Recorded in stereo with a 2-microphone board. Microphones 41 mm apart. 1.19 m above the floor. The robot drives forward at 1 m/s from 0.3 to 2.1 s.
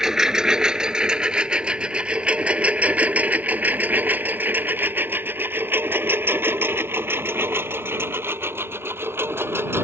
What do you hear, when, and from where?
0.0 s a lawn mower: 15° right (ahead or behind); by 9.8 s 85° right